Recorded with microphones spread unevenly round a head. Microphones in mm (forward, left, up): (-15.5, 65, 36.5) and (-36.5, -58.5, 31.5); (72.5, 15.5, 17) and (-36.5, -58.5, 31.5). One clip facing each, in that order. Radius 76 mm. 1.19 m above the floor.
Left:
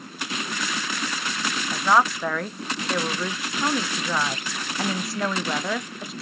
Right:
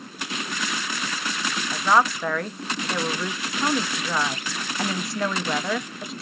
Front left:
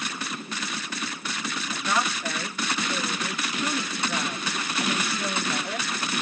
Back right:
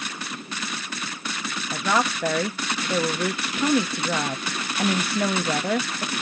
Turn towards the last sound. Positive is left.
turn(degrees=170)